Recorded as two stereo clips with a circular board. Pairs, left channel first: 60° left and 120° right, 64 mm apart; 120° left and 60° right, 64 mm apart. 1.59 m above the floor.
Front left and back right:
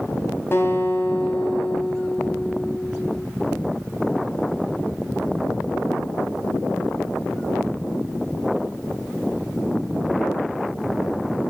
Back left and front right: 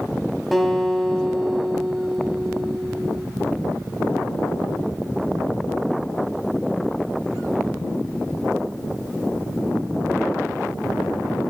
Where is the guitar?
30° left, 1.9 m.